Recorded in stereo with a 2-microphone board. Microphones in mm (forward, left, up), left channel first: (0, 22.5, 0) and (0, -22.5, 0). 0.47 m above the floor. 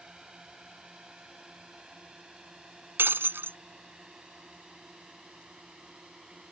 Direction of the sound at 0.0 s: 15° right (ahead or behind).